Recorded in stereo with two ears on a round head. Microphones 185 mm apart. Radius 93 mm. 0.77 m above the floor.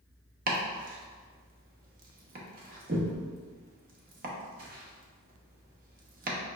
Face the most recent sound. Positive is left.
turn(degrees=-45)  # may be behind; listen again after turning